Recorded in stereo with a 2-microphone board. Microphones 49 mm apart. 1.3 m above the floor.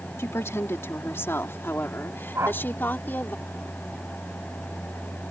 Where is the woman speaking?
65° left (ahead or behind); by 3.4 s 40° left (ahead or behind).